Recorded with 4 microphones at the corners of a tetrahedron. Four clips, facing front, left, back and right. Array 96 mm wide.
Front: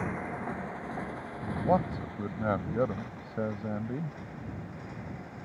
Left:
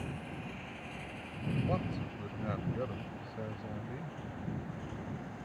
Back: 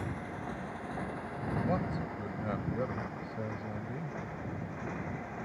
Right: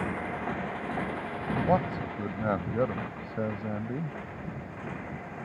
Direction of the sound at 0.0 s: 60° right.